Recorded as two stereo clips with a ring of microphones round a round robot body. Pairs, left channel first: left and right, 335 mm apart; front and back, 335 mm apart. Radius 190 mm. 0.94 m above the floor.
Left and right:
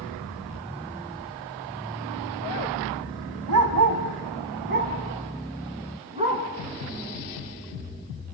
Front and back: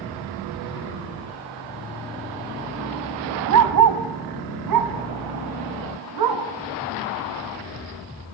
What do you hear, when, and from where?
3.5 s a dog barking: 140° right, 2.5 m; by 6.4 s 165° right, 4 m